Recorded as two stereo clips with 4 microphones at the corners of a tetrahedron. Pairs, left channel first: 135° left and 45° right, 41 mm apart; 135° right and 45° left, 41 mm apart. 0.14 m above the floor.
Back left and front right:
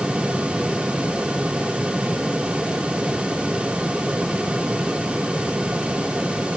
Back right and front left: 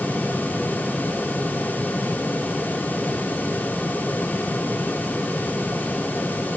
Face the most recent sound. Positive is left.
No sound to turn to.